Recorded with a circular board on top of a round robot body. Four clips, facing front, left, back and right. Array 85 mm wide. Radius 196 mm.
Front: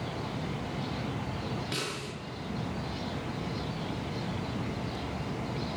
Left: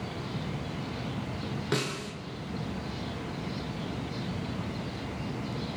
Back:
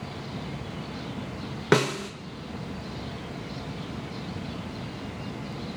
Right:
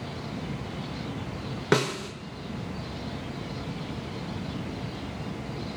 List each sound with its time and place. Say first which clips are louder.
1.7 s a snare drum: right 8 dB, back 13 dB; 150° right, 1.1 m